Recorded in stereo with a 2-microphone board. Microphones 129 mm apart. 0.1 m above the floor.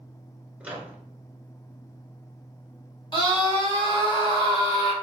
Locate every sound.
0.6 s a microwave: 10° right (ahead or behind), 1.0 m
3.1 s a scream: 35° left (ahead or behind), 2.5 m